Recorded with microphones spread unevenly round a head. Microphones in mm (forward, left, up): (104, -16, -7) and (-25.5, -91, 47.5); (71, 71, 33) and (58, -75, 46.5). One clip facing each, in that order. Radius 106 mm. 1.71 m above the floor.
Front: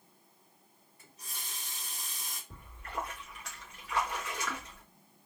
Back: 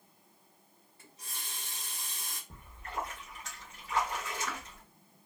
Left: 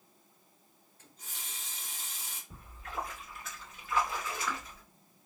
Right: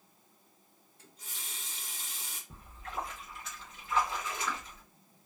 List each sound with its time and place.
1.0 s a running tap: 115° right, 1.7 m
2.5 s a splash: 145° right, 1.4 m